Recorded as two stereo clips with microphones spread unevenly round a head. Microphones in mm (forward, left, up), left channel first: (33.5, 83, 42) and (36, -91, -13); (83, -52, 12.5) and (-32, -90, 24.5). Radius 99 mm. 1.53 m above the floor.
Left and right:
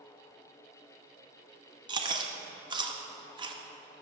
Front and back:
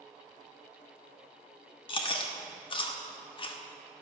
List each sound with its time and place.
1.9 s chewing: 15° right, 1.0 m